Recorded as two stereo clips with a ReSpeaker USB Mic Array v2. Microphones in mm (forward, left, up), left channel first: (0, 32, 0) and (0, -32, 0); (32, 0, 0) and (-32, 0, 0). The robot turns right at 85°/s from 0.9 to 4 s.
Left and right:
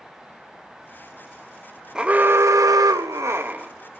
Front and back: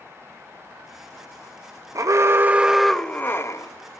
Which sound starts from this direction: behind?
An alarm, at 1.9 s.